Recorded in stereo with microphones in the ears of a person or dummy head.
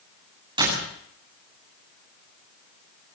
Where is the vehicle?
No vehicle in this recording.